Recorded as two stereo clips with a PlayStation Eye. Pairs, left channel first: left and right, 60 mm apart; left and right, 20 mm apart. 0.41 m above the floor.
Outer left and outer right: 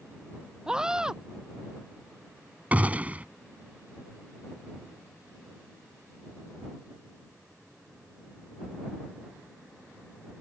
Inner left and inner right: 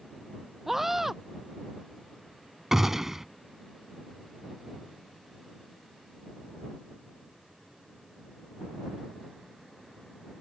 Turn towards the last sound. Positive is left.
turn(degrees=-25)  # may be behind; listen again after turning